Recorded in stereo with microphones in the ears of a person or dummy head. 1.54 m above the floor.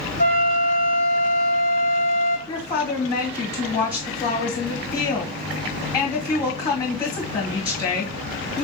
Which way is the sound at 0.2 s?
65° right (ahead or behind).